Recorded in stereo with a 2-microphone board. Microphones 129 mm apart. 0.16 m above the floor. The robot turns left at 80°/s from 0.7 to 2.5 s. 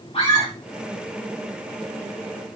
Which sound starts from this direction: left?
A scream, at 0.1 s.